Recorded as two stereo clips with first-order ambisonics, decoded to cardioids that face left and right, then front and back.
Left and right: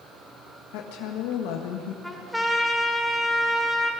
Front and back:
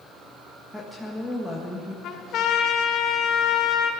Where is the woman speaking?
85° left, 1.5 m.